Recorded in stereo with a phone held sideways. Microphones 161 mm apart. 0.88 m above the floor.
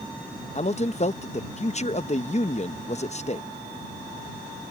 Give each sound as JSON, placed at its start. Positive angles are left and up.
{"t": 0.6, "sound": "a man speaking", "side_deg": 45}